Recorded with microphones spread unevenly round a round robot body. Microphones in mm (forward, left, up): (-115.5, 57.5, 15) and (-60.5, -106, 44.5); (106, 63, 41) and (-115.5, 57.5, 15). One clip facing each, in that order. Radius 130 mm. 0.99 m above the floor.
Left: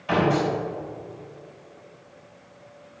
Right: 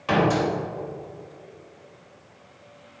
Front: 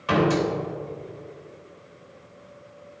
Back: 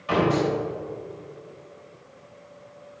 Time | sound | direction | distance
0.1 | a door slam | 40° right | 2.5 m